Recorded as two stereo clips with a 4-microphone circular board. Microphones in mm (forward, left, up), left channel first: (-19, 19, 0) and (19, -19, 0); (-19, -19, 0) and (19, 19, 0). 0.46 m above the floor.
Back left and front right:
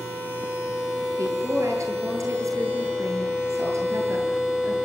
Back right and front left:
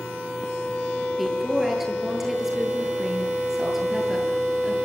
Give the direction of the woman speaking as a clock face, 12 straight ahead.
1 o'clock.